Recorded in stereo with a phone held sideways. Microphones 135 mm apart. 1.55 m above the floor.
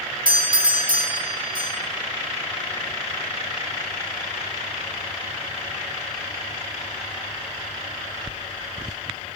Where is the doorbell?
85° right, 3.5 m.